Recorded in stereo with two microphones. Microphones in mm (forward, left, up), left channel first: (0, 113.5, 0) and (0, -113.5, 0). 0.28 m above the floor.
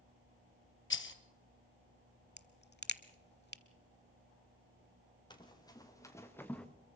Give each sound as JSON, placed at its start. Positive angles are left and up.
{"t": 0.9, "sound": "a rattle", "side_deg": 60, "distance_m": 1.1}
{"t": 2.4, "sound": "a crack", "side_deg": 50, "distance_m": 0.8}
{"t": 5.3, "sound": "running footsteps", "side_deg": 20, "distance_m": 4.0}